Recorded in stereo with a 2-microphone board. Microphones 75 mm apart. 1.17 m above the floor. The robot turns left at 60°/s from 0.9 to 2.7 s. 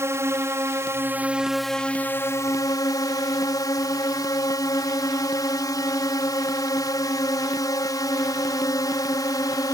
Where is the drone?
140° right; by 9.7 s 115° left.